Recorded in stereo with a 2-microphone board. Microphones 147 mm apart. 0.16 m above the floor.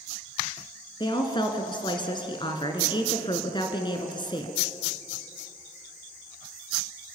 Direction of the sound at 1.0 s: 30° left (ahead or behind).